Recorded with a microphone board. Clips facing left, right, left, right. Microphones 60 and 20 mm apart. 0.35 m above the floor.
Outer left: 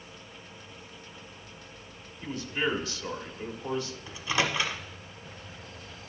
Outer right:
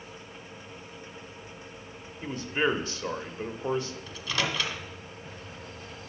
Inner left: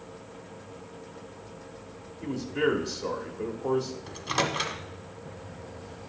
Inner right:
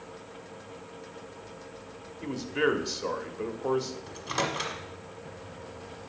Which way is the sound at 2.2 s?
30° right (ahead or behind).